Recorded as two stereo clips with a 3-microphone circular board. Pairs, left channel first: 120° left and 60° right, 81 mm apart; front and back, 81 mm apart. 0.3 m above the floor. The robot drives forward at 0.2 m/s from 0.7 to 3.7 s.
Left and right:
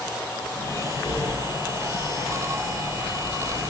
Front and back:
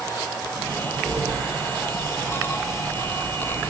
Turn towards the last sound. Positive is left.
turn(degrees=145)